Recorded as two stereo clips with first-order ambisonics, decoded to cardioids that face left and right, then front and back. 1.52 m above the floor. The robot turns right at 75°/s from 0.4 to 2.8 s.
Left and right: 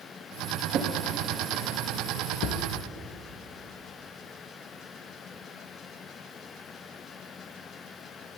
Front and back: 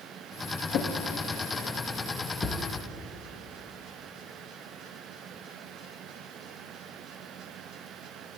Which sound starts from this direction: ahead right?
A drawer, at 0.7 s.